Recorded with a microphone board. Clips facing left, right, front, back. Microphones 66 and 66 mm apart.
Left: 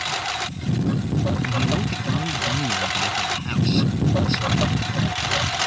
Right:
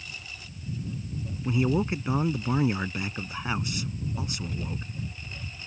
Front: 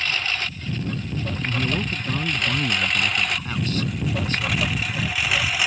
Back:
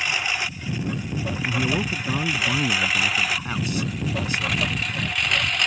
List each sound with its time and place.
0.0 s a lawn mower: 100° left; by 5.7 s 85° left
1.4 s a man speaking: 130° right